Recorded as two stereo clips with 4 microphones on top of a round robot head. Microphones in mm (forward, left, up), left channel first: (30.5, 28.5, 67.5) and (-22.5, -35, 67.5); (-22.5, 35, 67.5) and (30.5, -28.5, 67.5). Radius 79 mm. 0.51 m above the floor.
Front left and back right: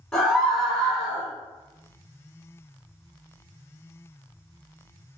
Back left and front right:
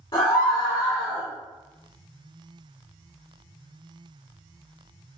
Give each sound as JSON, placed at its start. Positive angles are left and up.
{"t": 0.1, "sound": "a scream", "azimuth_deg": 120, "distance_m": 1.9}